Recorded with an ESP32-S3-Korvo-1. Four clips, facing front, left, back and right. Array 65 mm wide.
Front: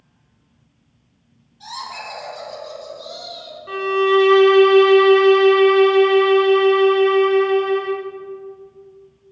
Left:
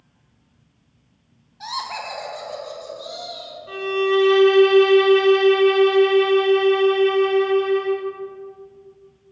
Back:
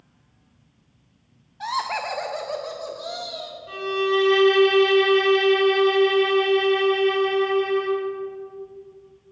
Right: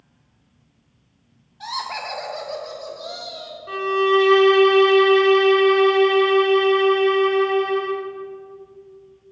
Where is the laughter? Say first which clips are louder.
Even, back 6 dB; 175° left, 1.1 m; by 3.6 s 160° right, 2.5 m.